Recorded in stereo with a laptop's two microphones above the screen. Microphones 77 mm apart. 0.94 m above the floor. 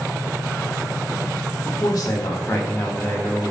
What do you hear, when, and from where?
1.6 s a man speaking: 60° left (ahead or behind), 1.3 m; by 3.5 s 10° left (ahead or behind), 1.1 m